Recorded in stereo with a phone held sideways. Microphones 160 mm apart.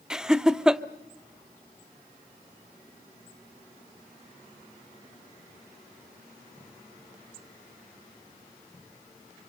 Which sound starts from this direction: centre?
Laughter, at 0.1 s.